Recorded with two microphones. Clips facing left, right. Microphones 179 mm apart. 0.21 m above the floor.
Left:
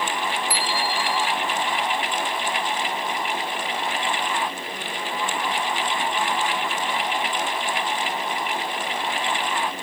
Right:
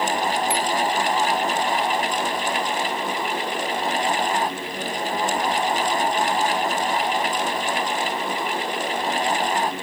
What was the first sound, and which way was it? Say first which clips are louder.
A bicycle bell: right 4 dB; 25° right (ahead or behind).